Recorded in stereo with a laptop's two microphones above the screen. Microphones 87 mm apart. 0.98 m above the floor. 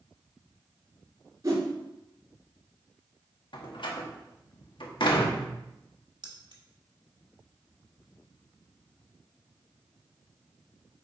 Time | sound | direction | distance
1.4 | a whoosh | 35° right (ahead or behind) | 3.5 m
3.5 | a door slam | 70° left (ahead or behind) | 1.3 m
6.2 | keys jangling | 60° right (ahead or behind) | 1.7 m